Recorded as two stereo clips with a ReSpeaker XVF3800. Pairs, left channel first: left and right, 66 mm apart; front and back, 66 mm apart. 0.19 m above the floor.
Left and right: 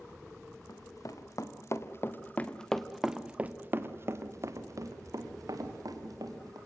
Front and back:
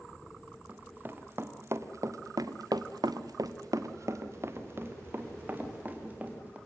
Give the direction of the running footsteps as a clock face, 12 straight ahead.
8 o'clock.